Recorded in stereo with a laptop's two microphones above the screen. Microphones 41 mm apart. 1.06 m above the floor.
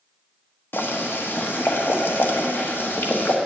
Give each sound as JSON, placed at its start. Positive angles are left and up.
{"t": 0.7, "sound": "boiling", "side_deg": 65, "distance_m": 1.0}